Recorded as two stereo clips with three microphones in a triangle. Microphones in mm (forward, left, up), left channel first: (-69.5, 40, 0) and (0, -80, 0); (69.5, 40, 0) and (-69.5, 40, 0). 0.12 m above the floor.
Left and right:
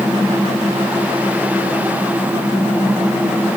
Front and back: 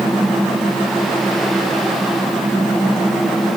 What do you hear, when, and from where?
Only background noise.